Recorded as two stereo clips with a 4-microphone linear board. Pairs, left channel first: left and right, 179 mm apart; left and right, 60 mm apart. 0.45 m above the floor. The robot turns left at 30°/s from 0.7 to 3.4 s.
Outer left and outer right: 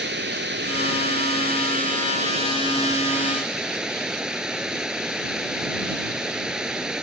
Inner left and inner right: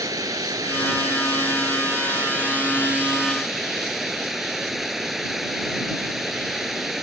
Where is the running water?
95° right; by 7.0 s 175° right.